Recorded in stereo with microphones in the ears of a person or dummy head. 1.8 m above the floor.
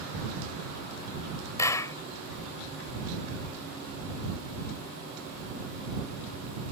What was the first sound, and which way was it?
A clap, 20° left (ahead or behind).